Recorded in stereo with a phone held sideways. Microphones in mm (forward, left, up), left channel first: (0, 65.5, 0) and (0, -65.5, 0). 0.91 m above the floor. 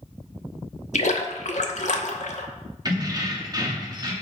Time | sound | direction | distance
0.9 | a splash | 65° left (ahead or behind) | 0.8 m
2.9 | keys jangling | 30° right (ahead or behind) | 1.1 m